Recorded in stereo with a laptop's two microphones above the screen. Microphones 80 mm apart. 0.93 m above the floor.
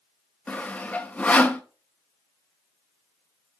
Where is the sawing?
15° left (ahead or behind), 0.7 m.